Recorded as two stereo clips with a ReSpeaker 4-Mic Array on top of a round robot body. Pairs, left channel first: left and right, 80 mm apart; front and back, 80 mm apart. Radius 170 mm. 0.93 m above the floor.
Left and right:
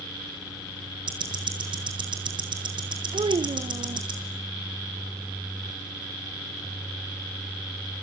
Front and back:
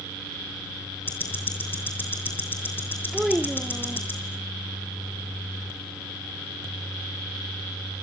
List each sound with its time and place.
1.1 s ticking: 65° right, 5.5 m
3.1 s a child speaking: 95° right, 0.7 m